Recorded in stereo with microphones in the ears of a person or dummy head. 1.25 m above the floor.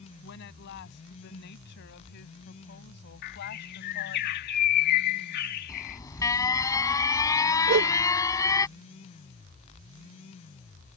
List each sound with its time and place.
0.2 s a woman speaking: 65° left (ahead or behind); by 4.2 s 60° left (ahead or behind)
3.2 s a bird: 55° left (ahead or behind)
5.7 s an alarm: 20° left (ahead or behind)
7.7 s a whoosh: 55° right (ahead or behind)